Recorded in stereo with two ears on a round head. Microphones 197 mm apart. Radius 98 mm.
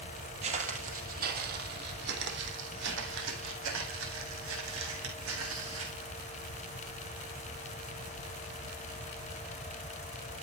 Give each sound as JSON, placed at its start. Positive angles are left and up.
{"t": 0.4, "sound": "footsteps", "side_deg": -30, "distance_m": 2.5}